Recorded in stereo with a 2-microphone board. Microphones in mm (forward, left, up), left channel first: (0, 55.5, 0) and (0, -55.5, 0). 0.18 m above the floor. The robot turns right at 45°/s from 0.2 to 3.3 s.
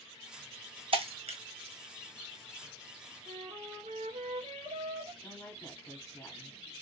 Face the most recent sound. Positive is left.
turn(degrees=25)  # may be behind; listen again after turning